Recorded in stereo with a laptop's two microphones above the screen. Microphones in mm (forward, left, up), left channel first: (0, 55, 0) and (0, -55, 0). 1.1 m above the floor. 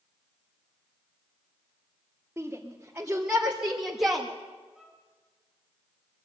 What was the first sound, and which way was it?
A shout, 20° right (ahead or behind).